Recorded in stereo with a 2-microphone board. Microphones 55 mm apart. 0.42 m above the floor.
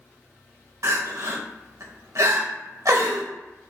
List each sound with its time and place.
0.8 s crying: 65° right (ahead or behind), 0.7 m